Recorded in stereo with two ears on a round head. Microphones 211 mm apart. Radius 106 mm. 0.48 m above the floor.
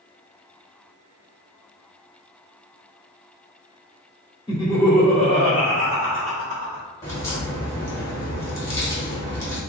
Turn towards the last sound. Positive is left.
turn(degrees=15)  # may be behind; listen again after turning